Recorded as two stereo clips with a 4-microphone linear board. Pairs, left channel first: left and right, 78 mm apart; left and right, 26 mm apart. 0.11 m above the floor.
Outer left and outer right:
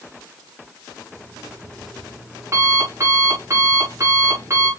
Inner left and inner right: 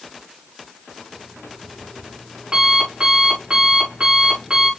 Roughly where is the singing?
No singing in this recording.